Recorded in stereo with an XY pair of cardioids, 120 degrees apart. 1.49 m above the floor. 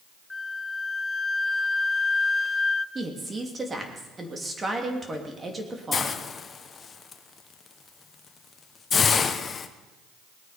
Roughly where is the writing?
I don't hear writing.